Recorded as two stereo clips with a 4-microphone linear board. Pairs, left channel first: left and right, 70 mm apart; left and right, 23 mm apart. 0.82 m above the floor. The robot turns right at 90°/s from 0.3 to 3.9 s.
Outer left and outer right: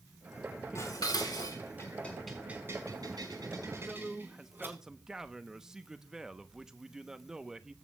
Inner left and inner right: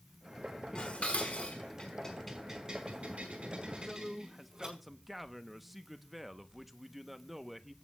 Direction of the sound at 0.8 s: 45° left (ahead or behind).